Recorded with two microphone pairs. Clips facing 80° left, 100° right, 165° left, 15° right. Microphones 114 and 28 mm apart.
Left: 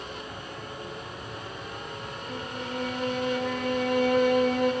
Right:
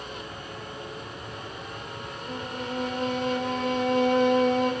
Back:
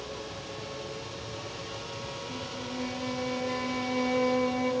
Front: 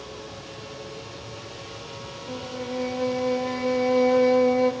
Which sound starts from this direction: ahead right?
A violin, at 2.3 s.